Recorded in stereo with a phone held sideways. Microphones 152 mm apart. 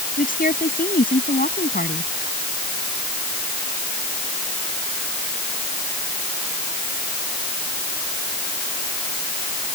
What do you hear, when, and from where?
0.2 s a woman speaking: 65° left (ahead or behind)